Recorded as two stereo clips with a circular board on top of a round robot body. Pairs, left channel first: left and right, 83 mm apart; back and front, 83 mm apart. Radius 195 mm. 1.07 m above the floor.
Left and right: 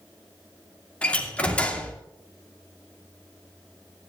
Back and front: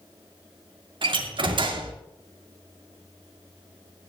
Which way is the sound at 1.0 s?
15° left.